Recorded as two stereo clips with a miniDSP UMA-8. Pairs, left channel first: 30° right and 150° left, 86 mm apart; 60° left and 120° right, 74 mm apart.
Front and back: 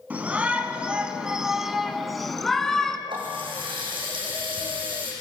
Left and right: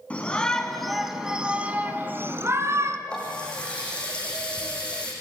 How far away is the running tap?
About 5.5 m.